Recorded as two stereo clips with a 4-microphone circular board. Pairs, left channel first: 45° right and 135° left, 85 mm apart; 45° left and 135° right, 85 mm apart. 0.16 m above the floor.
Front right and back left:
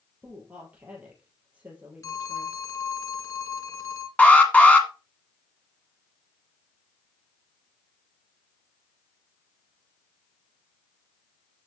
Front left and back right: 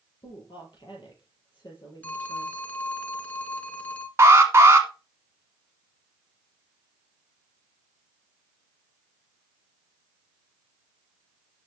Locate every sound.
0.2 s a woman speaking: 65° left, 3.5 m
2.0 s a phone ringing: 20° right, 1.0 m
4.2 s an alarm: 105° right, 1.5 m